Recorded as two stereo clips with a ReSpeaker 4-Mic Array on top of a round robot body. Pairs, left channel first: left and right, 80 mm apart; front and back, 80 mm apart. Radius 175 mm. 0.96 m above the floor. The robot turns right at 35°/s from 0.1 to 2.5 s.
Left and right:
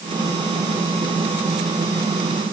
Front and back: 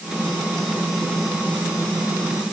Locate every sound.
Only background noise.